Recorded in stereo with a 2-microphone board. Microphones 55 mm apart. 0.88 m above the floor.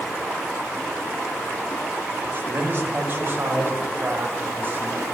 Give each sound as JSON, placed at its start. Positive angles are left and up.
{"t": 2.2, "sound": "a man speaking", "side_deg": -35, "distance_m": 2.5}